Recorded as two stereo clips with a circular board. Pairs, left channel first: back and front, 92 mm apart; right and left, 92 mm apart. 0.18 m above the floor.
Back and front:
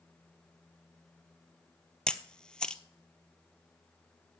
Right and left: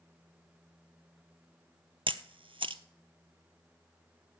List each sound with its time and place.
2.1 s a camera shutter: 100° left, 0.6 m